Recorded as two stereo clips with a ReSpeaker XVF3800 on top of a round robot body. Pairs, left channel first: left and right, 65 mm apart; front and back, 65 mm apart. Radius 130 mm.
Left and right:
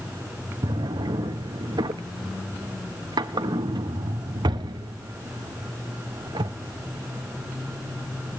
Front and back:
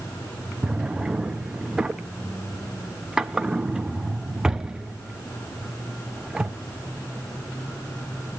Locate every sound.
0.6 s a drawer: 105° right, 0.6 m